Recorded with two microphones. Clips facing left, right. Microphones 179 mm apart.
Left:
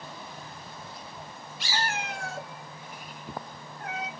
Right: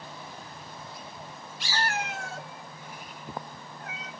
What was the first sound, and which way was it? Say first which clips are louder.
A cat meowing: right 1 dB; 20° left (ahead or behind).